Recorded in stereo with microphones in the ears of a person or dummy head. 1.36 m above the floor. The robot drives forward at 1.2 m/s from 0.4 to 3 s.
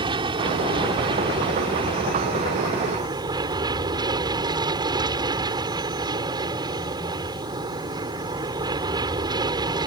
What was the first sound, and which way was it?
An aircraft, 25° right (ahead or behind).